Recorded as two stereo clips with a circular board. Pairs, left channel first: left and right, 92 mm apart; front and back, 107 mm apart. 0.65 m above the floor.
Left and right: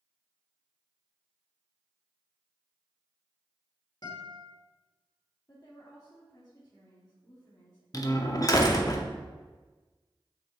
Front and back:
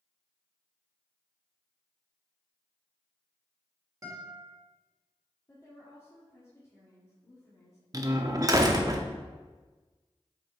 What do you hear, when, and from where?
4.0 s a guitar: 125° left, 1.8 m
5.5 s a woman speaking: 55° left, 1.7 m
7.9 s a door slam: 130° left, 0.6 m